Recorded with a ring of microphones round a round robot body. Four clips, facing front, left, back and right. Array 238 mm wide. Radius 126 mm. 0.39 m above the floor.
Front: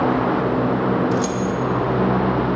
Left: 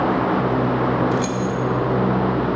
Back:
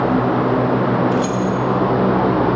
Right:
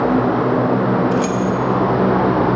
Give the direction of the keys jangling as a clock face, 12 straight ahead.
1 o'clock.